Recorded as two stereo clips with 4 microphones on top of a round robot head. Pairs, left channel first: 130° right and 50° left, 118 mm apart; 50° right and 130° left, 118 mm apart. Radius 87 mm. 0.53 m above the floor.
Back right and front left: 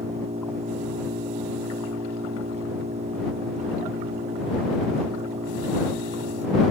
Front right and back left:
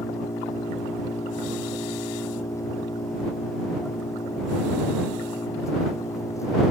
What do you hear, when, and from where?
0.0 s an engine running: 15° left